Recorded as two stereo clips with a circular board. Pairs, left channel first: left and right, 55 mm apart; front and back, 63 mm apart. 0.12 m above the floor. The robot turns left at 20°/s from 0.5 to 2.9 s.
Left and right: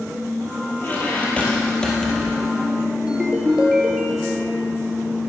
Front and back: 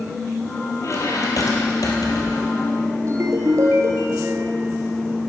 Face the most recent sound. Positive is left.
turn(degrees=-165)